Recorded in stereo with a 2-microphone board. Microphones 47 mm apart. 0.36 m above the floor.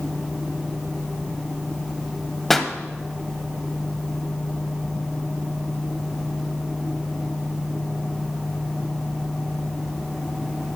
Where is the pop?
5° left (ahead or behind), 0.9 m.